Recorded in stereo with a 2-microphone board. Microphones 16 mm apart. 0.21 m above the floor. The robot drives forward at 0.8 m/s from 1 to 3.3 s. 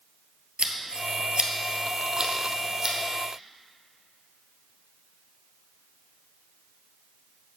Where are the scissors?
85° right, 0.8 m; by 3.0 s 25° right (ahead or behind), 1.8 m.